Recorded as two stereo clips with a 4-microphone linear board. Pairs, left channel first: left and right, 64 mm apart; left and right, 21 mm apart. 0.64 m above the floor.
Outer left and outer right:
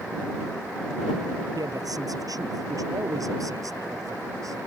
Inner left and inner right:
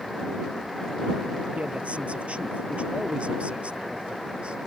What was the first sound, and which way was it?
A man speaking, 70° right (ahead or behind).